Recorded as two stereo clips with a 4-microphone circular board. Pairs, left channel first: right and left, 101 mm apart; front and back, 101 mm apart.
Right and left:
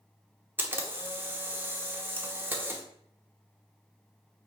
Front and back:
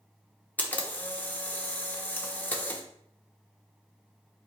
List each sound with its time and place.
0.6 s a camera shutter: 50° left, 0.7 m